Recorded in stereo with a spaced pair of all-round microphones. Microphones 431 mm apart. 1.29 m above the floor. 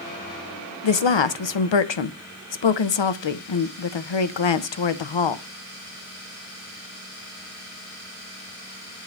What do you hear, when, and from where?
0.8 s a woman speaking: 85° left, 0.6 m